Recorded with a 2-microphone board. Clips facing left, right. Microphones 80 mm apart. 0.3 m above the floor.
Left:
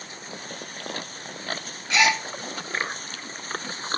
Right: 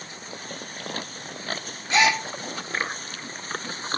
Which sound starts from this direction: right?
A gasp, at 1.9 s.